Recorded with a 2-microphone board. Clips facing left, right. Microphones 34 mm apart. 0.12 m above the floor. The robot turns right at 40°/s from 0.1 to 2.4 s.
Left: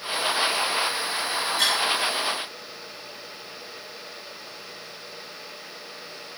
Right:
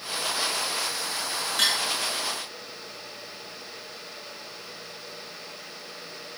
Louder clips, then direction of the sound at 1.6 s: Even; 65° right (ahead or behind).